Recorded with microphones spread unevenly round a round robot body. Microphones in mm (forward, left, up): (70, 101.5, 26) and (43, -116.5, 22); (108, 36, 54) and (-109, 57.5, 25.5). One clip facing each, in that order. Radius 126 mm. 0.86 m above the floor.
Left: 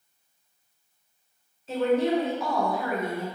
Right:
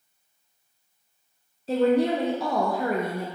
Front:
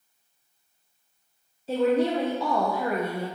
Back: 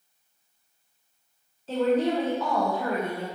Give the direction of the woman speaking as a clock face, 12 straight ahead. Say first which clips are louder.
Right 2 dB, front 1 dB; 3 o'clock.